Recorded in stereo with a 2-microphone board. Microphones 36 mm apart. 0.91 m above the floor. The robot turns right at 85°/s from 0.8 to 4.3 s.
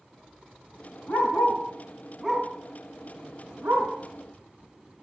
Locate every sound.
1.1 s a dog barking: 80° left, 3.5 m; by 3.9 s 35° right (ahead or behind), 3.5 m